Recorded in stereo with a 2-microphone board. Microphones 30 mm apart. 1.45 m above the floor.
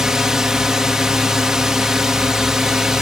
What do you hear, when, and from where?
0.0 s a drone: 20° right (ahead or behind)